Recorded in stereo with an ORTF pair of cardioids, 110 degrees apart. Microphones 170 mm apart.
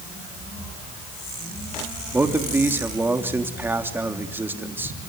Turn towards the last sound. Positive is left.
turn(degrees=-10)